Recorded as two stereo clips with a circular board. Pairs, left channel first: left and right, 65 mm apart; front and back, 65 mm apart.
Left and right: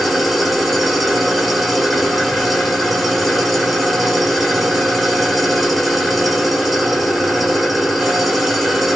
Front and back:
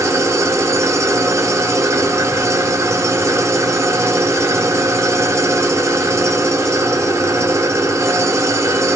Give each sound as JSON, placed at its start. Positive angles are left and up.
{"t": 0.0, "sound": "an engine running", "azimuth_deg": 180, "distance_m": 0.8}